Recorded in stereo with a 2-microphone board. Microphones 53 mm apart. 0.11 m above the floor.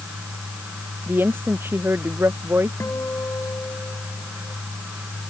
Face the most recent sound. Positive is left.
turn(degrees=55)  # may be behind; listen again after turning